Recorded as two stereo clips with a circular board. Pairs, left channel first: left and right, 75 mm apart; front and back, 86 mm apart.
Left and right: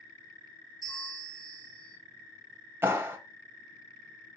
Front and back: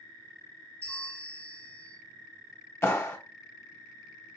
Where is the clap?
45° right, 0.8 m.